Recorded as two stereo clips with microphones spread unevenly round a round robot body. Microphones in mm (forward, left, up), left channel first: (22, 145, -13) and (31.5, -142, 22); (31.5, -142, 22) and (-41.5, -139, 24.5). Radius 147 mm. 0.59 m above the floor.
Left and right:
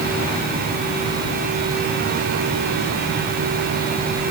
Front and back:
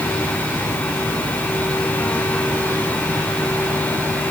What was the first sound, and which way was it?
Only background noise.